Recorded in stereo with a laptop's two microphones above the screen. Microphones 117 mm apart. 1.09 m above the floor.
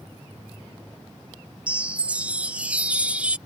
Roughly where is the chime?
Centre.